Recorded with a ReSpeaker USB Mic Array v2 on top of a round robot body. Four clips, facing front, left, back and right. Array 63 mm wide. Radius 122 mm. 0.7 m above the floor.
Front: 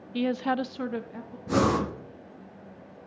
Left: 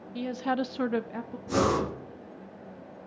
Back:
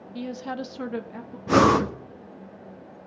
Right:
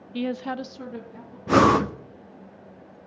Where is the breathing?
120° right, 0.8 m.